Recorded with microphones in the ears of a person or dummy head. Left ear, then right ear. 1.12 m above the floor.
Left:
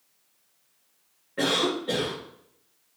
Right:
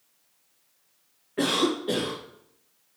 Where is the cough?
5° right (ahead or behind), 1.4 m.